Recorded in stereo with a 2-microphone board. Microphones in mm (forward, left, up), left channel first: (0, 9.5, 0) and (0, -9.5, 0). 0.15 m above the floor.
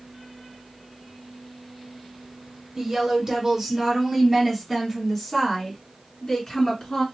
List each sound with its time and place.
2.8 s a woman speaking: 30° right (ahead or behind), 1.6 m; by 7.0 s 45° left (ahead or behind), 2.0 m